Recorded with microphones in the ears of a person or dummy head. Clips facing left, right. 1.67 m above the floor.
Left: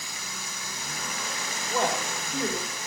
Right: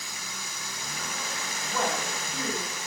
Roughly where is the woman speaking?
Left.